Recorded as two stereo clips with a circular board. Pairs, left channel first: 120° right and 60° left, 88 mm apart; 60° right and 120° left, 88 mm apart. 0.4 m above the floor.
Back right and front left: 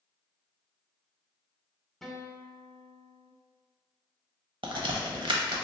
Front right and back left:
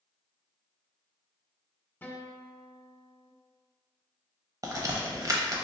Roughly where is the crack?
Left.